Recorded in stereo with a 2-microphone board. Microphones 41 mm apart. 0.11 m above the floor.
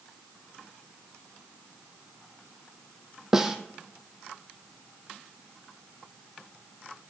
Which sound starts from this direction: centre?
A snare drum, at 3.3 s.